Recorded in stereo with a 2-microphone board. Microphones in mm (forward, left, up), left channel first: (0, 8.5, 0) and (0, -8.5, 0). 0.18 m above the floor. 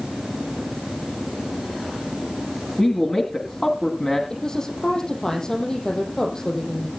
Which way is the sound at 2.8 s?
35° left (ahead or behind).